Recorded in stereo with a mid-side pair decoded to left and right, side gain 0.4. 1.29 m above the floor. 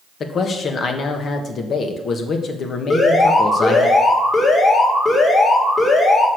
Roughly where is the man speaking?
Ahead left.